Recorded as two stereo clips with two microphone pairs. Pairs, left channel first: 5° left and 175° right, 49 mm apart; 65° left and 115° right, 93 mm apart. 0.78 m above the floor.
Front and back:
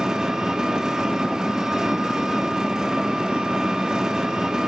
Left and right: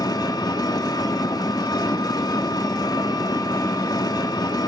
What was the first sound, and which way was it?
An engine running, 110° left.